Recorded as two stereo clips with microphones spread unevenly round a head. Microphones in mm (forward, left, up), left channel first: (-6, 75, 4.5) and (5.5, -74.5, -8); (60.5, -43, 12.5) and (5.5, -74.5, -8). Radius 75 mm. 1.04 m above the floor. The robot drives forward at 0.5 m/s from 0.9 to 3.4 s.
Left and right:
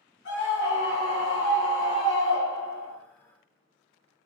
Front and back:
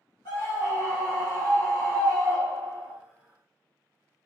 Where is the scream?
80° left, 1.1 m; by 3.0 s 130° left, 1.4 m.